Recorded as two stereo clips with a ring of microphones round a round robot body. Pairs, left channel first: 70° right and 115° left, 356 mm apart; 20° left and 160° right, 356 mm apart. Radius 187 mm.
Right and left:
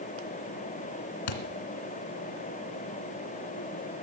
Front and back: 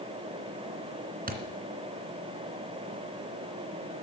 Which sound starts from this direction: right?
A thud, at 1.3 s.